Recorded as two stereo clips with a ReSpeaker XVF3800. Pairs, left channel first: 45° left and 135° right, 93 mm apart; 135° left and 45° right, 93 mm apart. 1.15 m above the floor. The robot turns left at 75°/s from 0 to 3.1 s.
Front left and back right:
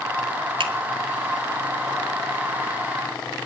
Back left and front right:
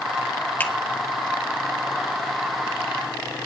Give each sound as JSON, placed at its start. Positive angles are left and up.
{"t": 0.6, "sound": "a finger snap", "azimuth_deg": -155, "distance_m": 1.9}